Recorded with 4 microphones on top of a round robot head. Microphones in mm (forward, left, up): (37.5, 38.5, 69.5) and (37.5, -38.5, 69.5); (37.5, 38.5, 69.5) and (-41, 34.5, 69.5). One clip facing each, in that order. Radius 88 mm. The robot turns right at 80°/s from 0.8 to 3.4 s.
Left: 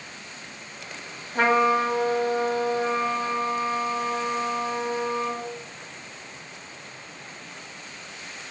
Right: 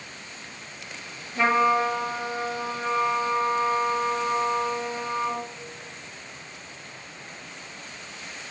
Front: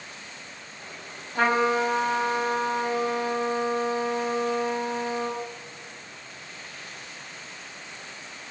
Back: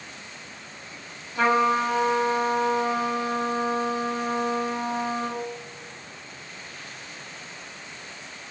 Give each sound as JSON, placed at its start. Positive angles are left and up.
{"t": 1.4, "sound": "a trumpet", "azimuth_deg": 45, "distance_m": 1.1}